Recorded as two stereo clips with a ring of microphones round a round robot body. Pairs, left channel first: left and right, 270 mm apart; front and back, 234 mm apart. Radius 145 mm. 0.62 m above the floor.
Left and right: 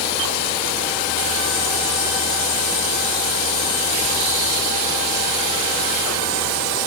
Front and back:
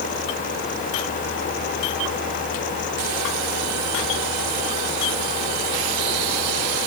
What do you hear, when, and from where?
Only background noise.